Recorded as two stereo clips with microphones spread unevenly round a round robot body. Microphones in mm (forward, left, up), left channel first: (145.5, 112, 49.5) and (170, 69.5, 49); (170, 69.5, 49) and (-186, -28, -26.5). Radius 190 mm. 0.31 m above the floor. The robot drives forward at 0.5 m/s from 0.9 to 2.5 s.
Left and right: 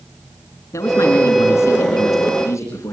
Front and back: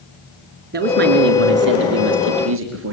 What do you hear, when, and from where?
0.7 s a man speaking: 135° left, 3.5 m; by 2.9 s 145° left, 4 m